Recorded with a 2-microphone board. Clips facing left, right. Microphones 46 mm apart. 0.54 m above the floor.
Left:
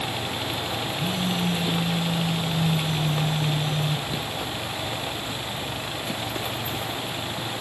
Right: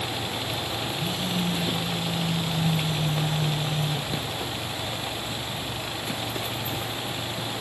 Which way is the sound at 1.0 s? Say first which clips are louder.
Left 3 dB; 45° left (ahead or behind).